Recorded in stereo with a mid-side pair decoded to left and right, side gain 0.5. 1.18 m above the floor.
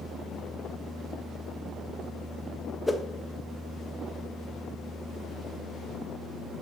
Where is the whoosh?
10° left, 1.3 m.